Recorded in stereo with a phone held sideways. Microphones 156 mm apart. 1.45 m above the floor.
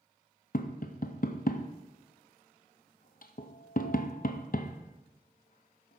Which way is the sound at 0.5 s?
65° left (ahead or behind).